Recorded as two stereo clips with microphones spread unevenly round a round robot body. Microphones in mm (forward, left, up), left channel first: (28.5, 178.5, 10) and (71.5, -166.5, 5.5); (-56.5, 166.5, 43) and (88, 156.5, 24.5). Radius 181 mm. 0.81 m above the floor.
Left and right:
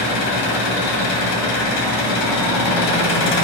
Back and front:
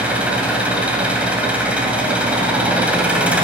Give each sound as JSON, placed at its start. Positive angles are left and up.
{"t": 0.0, "sound": "an engine running", "azimuth_deg": 80, "distance_m": 1.9}